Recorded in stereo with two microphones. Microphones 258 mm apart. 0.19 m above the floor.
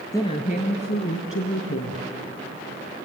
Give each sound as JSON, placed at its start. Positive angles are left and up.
{"t": 0.1, "sound": "a woman speaking", "side_deg": 15, "distance_m": 1.0}